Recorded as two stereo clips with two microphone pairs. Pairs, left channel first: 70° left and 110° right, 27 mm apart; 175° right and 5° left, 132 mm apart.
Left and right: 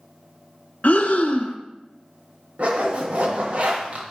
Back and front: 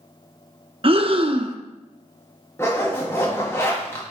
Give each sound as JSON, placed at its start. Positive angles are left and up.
{"t": 0.8, "sound": "breathing", "azimuth_deg": 50, "distance_m": 0.6}
{"t": 2.6, "sound": "a zipper", "azimuth_deg": -110, "distance_m": 1.4}